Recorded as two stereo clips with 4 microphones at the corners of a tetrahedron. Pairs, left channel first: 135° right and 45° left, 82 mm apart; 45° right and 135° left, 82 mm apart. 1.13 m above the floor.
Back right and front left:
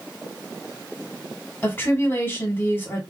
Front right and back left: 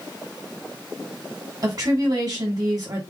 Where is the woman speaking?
165° left, 1.5 m.